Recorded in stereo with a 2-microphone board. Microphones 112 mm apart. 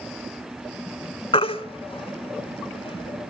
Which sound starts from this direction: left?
A baby crying, at 1.3 s.